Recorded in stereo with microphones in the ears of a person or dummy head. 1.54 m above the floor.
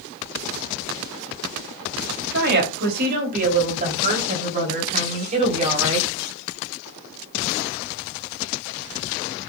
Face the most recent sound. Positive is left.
turn(degrees=-35)  # may be behind; listen again after turning